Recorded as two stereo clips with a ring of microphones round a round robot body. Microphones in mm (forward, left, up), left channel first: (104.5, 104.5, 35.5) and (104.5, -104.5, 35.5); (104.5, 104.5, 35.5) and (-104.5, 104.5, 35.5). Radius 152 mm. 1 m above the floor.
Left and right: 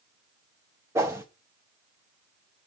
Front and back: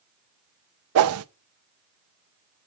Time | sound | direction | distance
0.9 | a whoosh | 170° right | 0.6 m